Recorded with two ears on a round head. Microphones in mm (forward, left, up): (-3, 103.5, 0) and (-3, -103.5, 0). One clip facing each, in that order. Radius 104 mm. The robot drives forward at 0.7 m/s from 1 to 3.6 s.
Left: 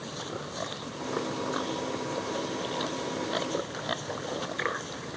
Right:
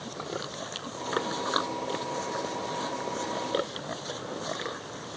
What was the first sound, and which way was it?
Only background noise.